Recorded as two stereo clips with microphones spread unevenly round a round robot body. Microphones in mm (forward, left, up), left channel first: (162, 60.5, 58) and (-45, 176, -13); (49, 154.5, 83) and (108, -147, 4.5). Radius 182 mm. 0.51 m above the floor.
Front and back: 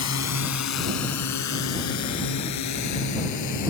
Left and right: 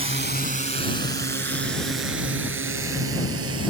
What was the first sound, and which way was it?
A drone, 10° right.